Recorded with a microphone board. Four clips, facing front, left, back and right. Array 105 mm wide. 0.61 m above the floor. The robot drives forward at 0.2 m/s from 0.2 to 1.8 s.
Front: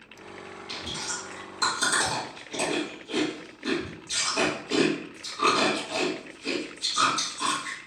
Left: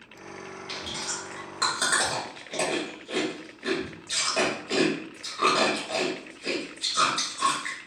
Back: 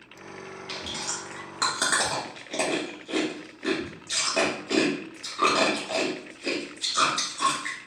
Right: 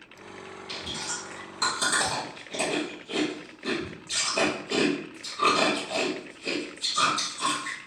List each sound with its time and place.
0.7 s chewing: 150° left, 1.7 m; by 7.8 s 155° left, 1.9 m